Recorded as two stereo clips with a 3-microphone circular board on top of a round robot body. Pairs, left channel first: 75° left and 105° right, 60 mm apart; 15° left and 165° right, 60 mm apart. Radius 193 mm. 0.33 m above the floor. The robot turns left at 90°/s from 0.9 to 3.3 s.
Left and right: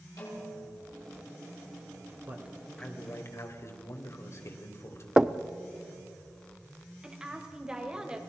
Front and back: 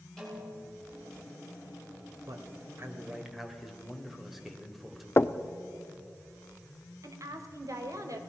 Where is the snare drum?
100° left, 6.5 m.